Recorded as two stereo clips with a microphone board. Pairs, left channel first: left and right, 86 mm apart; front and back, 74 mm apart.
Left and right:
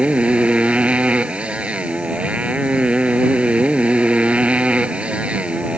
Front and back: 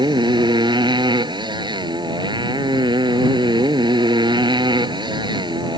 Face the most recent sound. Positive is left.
turn(degrees=-165)